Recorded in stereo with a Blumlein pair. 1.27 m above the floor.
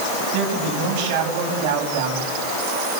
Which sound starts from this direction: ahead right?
A man speaking, at 0.3 s.